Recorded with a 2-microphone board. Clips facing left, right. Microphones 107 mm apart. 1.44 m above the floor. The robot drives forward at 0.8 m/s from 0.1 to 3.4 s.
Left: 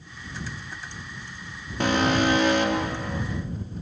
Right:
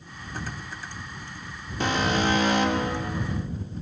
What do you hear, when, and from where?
1.8 s an alarm: 60° left (ahead or behind), 5 m; by 3.2 s 70° left (ahead or behind), 4.5 m